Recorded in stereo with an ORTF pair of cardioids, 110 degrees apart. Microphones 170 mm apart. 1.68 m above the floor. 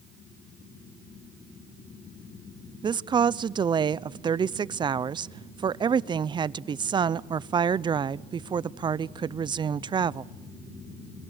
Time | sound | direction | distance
2.8 | a woman speaking | 30° right | 0.5 m